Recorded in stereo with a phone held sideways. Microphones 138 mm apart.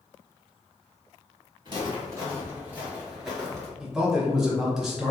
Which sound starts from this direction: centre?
A man speaking, at 3.8 s.